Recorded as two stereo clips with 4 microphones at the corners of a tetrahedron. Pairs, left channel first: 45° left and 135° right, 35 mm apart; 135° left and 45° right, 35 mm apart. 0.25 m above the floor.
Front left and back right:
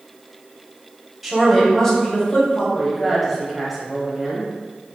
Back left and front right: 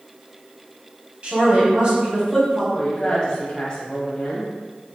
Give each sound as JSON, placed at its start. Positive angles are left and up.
{"t": 1.2, "sound": "a woman speaking", "azimuth_deg": -55, "distance_m": 1.5}
{"t": 2.8, "sound": "a woman speaking", "azimuth_deg": 140, "distance_m": 1.0}